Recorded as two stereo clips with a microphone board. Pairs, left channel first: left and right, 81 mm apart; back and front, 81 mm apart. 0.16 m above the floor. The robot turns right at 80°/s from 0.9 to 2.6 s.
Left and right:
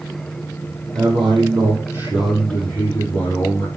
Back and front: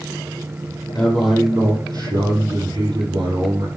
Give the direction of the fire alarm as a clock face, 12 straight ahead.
No fire alarm in this recording.